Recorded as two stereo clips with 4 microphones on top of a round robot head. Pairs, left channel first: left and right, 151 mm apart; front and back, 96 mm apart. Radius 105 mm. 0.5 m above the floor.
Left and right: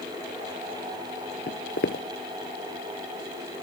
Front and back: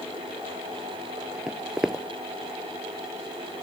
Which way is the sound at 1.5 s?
100° left.